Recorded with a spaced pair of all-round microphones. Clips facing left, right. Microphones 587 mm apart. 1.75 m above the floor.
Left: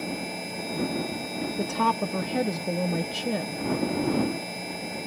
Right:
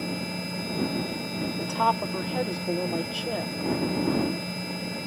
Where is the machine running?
35° right (ahead or behind).